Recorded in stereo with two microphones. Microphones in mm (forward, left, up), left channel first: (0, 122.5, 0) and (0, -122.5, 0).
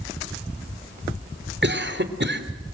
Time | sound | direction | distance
1.6 | a cough | 45° right (ahead or behind) | 2.5 m